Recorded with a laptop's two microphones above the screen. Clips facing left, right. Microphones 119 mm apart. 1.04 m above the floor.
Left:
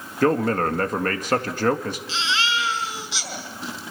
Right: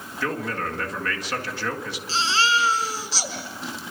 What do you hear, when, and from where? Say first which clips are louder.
0.2 s a man speaking: left 9 dB; 45° left (ahead or behind), 1.8 m
2.1 s a baby crying: right 5 dB; 40° right (ahead or behind), 6 m